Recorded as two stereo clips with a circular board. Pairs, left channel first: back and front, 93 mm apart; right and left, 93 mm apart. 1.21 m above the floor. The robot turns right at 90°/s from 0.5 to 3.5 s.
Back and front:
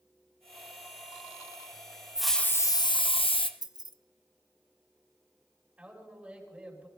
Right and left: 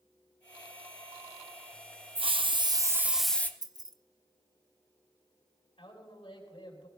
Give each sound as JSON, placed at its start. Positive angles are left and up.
{"t": 2.1, "sound": "a hiss", "azimuth_deg": 80, "distance_m": 0.7}
{"t": 3.6, "sound": "keys jangling", "azimuth_deg": 45, "distance_m": 0.6}
{"t": 5.8, "sound": "a man speaking", "azimuth_deg": -75, "distance_m": 5.0}